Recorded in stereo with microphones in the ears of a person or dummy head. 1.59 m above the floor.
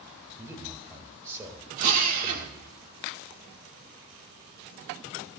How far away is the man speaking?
About 1.8 m.